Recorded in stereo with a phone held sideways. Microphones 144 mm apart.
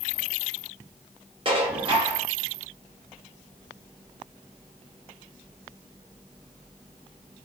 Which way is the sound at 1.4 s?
40° right (ahead or behind).